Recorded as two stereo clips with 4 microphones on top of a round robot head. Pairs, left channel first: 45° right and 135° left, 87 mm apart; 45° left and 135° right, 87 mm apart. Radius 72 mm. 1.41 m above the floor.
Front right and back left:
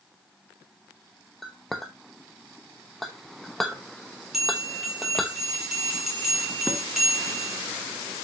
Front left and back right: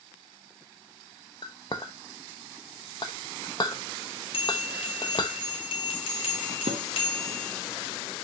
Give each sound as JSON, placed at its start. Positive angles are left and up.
{"t": 1.4, "sound": "a clink", "azimuth_deg": 45, "distance_m": 0.7}
{"t": 4.3, "sound": "a bell", "azimuth_deg": 50, "distance_m": 3.5}
{"t": 6.7, "sound": "dishes clattering", "azimuth_deg": -145, "distance_m": 1.5}